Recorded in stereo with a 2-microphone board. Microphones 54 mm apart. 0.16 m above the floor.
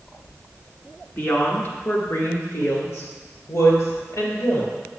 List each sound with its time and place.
1.2 s a woman speaking: 35° left (ahead or behind), 1.9 m; by 4.7 s 65° left (ahead or behind), 4 m